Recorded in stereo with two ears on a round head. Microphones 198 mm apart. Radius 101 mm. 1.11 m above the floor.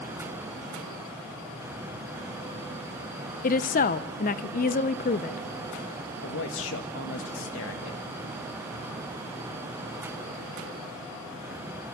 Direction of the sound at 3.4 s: 40° left (ahead or behind).